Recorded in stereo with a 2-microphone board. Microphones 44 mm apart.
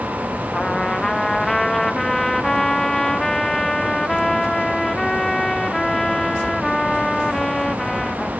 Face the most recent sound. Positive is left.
turn(degrees=10)  # may be behind; listen again after turning